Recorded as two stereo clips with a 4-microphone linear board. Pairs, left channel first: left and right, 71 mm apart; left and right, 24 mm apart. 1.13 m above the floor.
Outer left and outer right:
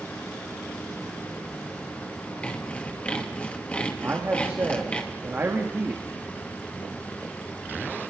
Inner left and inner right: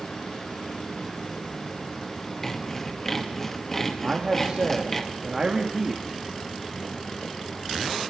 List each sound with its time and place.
2.4 s sawing: 15° left (ahead or behind), 1.9 m
4.0 s a man speaking: 30° right (ahead or behind), 2 m